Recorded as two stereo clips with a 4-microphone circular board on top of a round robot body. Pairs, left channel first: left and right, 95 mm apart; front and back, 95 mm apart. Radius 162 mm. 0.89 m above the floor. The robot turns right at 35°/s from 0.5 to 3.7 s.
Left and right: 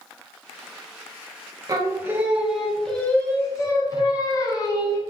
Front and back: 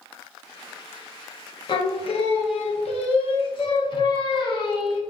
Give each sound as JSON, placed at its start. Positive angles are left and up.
{"t": 1.7, "sound": "singing", "azimuth_deg": -35, "distance_m": 0.6}